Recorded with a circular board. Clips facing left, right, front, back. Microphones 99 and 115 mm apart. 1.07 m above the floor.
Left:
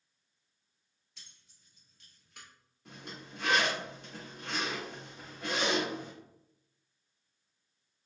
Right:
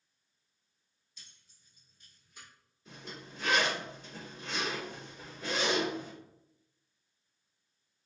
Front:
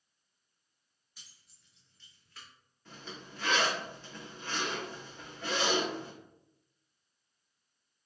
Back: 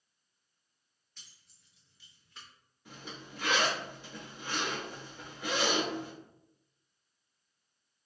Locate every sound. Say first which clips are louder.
1.2 s keys jangling: left 1 dB, even; 80° left, 1.2 m; by 2.5 s 115° left, 1.0 m
2.9 s a zipper: even, even; 105° left, 1.7 m